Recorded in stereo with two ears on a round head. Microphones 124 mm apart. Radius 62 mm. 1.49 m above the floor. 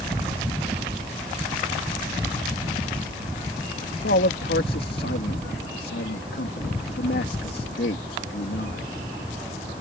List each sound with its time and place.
4.0 s a man speaking: 85° left